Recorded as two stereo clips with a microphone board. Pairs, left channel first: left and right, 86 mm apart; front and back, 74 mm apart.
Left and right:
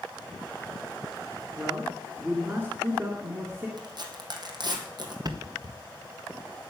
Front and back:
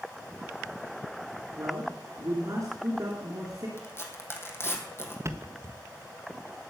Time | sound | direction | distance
1.6 | a man speaking | 150° right | 2.5 m
3.8 | tearing paper | 55° right | 2.5 m
5.2 | a thud | 130° right | 1.3 m